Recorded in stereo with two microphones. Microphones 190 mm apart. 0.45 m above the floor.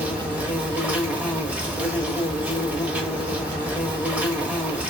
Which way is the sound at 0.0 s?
10° right (ahead or behind).